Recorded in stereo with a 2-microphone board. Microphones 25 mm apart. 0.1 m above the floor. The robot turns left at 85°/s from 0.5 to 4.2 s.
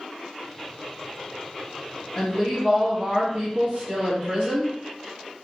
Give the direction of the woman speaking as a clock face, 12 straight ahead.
10 o'clock.